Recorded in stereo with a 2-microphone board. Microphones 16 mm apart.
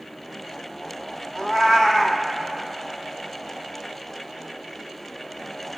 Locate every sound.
1.4 s a cat meowing: 35° left (ahead or behind), 0.9 m